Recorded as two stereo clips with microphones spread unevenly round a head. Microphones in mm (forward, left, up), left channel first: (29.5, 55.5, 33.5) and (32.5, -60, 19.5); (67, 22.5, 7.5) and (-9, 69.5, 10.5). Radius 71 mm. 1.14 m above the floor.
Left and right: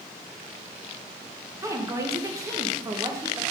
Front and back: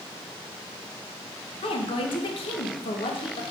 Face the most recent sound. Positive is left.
turn(degrees=-30)